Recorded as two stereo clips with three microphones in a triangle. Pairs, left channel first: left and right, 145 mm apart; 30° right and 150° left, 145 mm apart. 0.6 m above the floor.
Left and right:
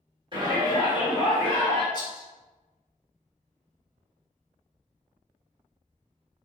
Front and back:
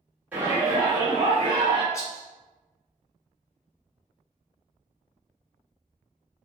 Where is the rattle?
35° left, 1.2 m.